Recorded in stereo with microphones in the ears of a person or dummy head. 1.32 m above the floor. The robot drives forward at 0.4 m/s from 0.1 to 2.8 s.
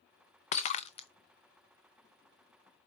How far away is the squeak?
No squeak in this recording.